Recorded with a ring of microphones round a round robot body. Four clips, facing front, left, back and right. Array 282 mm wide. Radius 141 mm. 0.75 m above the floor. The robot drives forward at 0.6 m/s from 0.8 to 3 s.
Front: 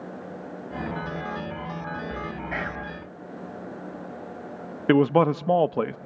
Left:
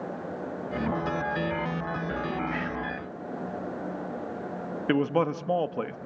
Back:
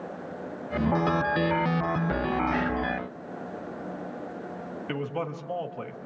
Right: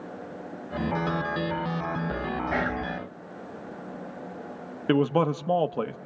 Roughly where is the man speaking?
Ahead.